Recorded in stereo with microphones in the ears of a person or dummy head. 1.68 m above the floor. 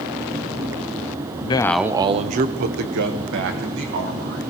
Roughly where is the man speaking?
Left.